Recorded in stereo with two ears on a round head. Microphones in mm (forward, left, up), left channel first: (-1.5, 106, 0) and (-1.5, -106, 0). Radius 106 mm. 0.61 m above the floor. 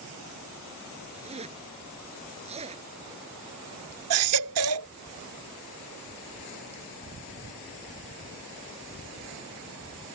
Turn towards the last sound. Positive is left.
turn(degrees=-65)  # may be behind; listen again after turning